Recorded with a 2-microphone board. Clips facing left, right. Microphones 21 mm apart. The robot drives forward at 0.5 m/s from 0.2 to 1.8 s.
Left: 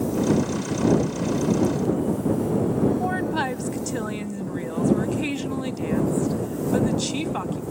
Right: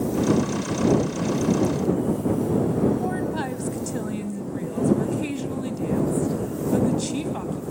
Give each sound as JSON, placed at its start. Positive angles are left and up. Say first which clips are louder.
{"t": 3.0, "sound": "a woman speaking", "louder": "left 2 dB", "side_deg": 30, "distance_m": 1.2}